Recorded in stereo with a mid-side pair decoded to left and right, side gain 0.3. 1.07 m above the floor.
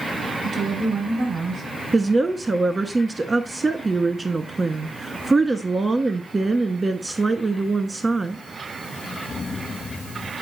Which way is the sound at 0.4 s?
65° right.